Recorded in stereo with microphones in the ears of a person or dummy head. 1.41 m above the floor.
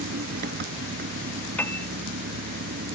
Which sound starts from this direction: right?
An engine running, at 0.0 s.